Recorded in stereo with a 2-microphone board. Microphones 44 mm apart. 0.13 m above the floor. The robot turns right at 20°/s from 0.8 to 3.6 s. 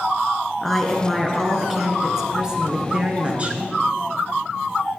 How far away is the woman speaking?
About 1.5 m.